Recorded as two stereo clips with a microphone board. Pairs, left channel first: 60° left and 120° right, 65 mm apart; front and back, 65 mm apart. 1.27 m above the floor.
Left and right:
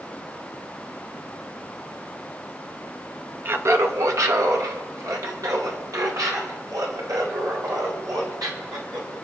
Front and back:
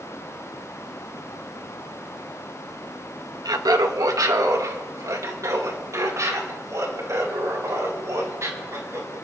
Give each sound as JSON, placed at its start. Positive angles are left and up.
{"t": 3.5, "sound": "laughter", "azimuth_deg": -175, "distance_m": 1.1}